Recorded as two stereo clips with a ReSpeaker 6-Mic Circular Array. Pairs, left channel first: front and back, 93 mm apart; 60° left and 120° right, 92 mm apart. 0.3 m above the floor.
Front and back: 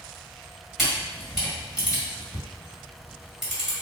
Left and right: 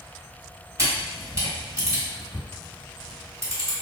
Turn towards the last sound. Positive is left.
turn(degrees=-90)